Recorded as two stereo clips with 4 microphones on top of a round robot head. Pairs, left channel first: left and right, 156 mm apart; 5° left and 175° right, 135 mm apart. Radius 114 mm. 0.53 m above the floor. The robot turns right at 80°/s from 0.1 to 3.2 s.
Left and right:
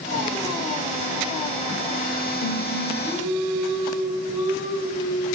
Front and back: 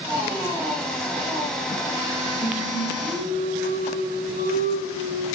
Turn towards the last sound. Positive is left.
turn(degrees=-155)